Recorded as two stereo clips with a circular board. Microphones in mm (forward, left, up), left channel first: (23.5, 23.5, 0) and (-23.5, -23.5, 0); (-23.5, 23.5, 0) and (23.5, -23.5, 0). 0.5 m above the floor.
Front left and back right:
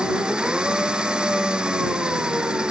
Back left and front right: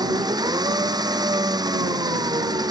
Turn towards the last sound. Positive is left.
turn(degrees=-60)